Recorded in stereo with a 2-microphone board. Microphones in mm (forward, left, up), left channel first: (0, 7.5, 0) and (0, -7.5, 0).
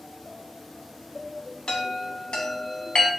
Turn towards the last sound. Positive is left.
turn(degrees=85)